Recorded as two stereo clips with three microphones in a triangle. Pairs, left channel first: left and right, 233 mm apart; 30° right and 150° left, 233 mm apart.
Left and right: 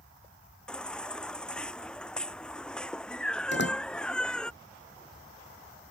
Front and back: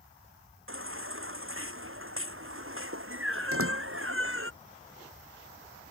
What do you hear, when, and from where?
0.7 s a baby crying: 175° left
3.5 s a door slam: 130° left